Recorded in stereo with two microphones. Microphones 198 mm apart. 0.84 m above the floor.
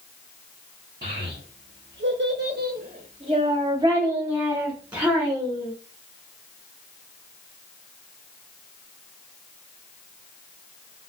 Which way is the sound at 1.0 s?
55° right (ahead or behind).